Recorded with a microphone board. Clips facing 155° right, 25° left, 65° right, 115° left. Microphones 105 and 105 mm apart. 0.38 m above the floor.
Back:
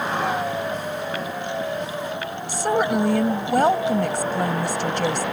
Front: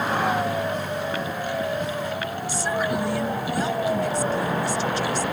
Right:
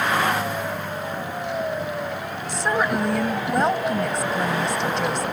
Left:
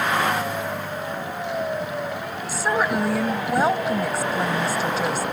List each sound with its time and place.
2.5 s a woman speaking: 165° right